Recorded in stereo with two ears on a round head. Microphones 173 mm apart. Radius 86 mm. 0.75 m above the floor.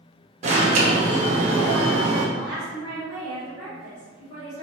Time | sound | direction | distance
0.4 | an alarm | 35° right (ahead or behind) | 1.1 m
2.4 | a woman speaking | 10° right (ahead or behind) | 1.9 m